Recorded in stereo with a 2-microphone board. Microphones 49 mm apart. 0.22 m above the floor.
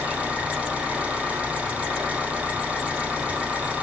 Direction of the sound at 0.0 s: 25° right (ahead or behind).